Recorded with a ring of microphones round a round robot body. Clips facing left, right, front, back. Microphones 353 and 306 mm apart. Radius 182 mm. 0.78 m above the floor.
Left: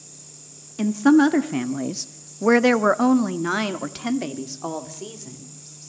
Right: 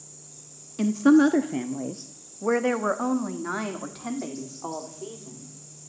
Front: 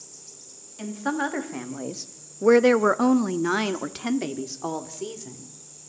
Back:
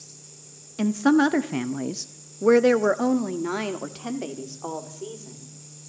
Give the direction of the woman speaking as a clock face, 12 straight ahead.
6 o'clock.